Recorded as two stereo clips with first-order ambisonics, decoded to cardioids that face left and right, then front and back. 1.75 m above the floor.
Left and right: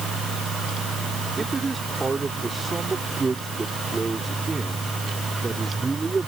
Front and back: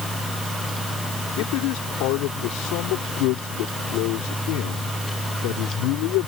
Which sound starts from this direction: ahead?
A man speaking, at 1.4 s.